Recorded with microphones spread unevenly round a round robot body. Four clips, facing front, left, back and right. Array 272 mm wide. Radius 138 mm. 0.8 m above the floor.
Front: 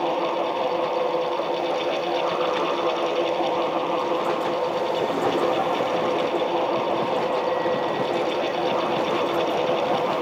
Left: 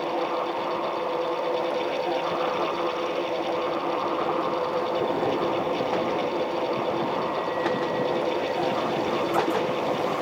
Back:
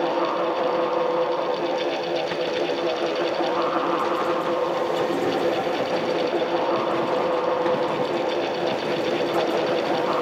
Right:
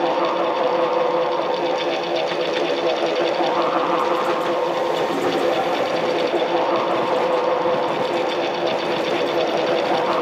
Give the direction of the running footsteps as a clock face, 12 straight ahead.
No running footsteps in this recording.